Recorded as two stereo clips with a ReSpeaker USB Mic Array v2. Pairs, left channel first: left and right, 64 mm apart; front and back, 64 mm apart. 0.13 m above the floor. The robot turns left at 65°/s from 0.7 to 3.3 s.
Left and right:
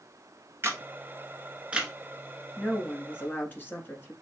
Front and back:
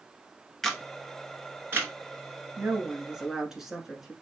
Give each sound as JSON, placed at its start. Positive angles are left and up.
{"t": 0.6, "sound": "a camera shutter", "azimuth_deg": -80, "distance_m": 1.1}
{"t": 2.6, "sound": "a woman speaking", "azimuth_deg": 155, "distance_m": 1.3}